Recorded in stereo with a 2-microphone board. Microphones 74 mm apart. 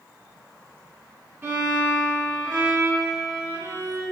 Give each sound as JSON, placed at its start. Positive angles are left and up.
{"t": 1.4, "sound": "a violin", "side_deg": -30, "distance_m": 1.2}